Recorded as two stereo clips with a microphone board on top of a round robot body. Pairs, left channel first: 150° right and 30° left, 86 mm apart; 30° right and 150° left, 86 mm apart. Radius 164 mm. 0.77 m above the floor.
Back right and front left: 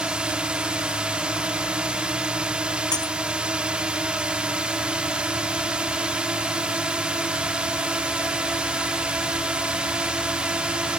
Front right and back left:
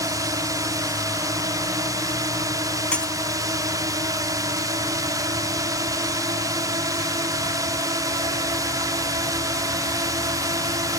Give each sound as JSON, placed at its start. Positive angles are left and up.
{"t": 0.0, "sound": "a drone", "azimuth_deg": 110}
{"t": 2.9, "sound": "breaking glass", "azimuth_deg": -105}